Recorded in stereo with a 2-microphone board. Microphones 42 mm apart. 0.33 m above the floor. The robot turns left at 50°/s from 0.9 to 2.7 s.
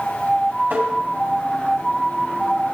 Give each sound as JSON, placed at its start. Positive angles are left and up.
{"t": 0.7, "sound": "tapping", "side_deg": -50, "distance_m": 3.0}